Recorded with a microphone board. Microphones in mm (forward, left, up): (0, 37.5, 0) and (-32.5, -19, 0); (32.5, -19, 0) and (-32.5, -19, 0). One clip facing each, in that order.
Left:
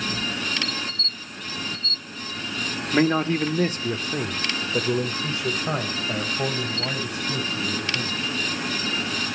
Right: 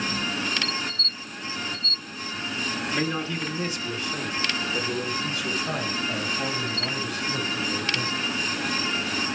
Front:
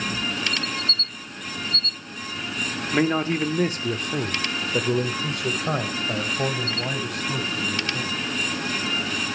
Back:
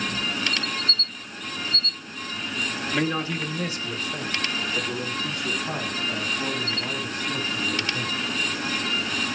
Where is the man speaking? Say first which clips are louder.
Left 10 dB, front 5 dB; 55° left, 1.1 m; by 8.3 s 10° right, 5 m.